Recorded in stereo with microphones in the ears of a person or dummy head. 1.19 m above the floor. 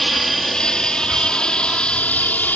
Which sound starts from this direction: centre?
An aircraft, at 0.0 s.